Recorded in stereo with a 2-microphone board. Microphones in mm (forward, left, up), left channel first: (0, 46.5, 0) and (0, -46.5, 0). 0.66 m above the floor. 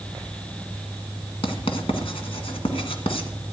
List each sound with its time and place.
1.4 s writing: 80° left, 1.8 m